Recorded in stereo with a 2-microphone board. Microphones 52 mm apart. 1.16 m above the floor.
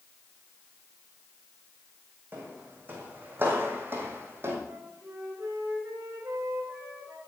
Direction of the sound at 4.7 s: 80° right.